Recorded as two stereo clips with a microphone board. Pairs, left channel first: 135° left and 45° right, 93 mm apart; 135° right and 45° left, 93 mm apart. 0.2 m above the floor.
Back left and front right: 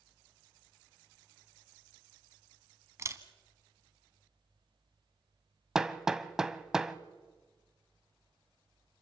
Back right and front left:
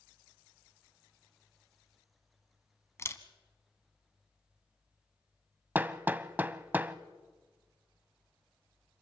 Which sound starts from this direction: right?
A camera shutter, at 3.0 s.